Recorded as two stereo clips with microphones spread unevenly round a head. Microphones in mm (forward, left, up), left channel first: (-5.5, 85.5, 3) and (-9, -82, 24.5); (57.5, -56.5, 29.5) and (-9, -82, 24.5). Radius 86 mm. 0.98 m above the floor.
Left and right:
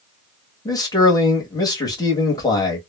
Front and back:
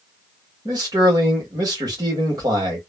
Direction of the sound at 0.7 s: 155° left.